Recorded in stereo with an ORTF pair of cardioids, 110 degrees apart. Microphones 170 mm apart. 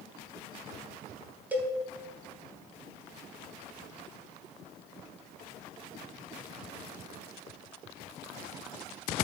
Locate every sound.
1.5 s a cowbell: 10° right, 2.5 m